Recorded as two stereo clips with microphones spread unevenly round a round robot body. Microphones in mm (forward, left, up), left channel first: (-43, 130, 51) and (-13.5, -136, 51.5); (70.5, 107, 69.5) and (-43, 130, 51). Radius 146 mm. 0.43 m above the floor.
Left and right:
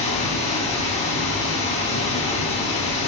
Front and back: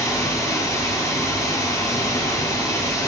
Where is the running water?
50° left, 0.9 m.